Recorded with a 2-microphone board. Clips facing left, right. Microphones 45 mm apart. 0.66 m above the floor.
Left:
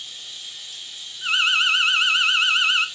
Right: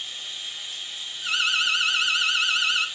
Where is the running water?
35° right (ahead or behind), 0.7 m.